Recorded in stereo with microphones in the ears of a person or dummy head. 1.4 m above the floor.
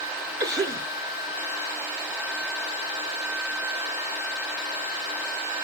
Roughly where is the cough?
Right.